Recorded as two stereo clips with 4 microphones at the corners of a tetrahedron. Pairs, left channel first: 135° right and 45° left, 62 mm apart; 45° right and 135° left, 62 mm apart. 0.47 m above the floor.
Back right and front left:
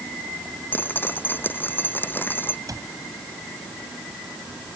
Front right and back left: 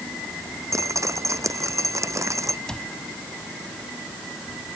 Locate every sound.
0.7 s dripping: 170° left
2.7 s a cupboard door: 35° left